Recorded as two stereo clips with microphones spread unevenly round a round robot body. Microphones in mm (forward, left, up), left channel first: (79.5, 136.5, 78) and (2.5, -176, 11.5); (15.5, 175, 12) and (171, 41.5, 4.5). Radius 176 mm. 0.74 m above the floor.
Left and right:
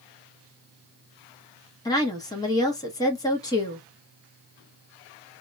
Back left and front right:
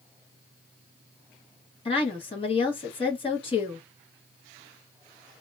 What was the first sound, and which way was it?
A woman speaking, 165° left.